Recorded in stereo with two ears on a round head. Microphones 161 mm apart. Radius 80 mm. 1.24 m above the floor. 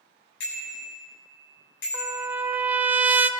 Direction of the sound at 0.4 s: 70° left (ahead or behind).